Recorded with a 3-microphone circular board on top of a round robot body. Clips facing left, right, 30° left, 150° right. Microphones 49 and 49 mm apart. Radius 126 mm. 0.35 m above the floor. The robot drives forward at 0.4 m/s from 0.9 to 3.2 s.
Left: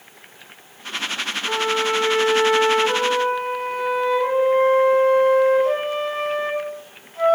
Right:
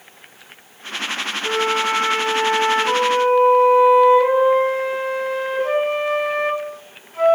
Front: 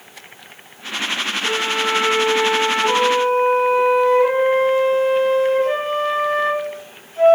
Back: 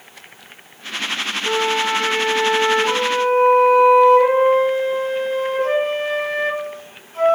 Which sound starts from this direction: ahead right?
A flute, at 1.4 s.